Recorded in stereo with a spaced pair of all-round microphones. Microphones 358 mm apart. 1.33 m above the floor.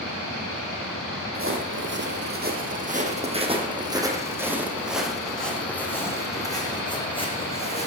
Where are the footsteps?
35° right (ahead or behind), 3 m; by 7.9 s 20° left (ahead or behind), 4 m.